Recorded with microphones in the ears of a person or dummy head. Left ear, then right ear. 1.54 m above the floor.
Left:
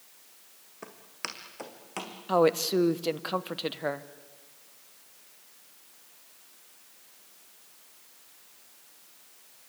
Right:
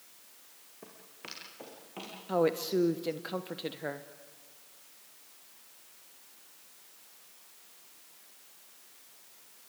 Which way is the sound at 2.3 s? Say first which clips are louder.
Left 5 dB; 25° left (ahead or behind).